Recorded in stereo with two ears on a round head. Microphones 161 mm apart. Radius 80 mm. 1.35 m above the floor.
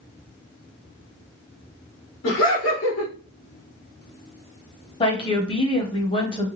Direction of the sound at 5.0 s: 30° left (ahead or behind).